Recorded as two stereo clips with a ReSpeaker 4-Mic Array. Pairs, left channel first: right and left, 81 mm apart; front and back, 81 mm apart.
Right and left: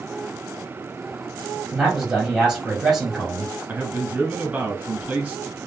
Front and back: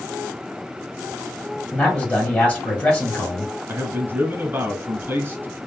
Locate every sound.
1.7 s a man speaking: 25° left, 1.5 m
3.7 s a man speaking: 145° left, 1.1 m